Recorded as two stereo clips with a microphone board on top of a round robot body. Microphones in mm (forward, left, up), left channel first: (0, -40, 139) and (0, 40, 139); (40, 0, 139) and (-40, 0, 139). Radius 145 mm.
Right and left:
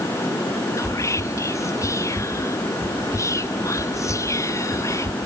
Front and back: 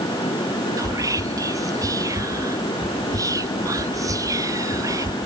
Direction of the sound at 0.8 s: 140° right.